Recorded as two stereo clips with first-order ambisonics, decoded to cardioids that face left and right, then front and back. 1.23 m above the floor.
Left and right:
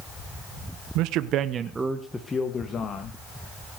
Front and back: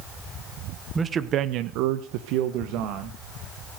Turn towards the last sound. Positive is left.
turn(degrees=150)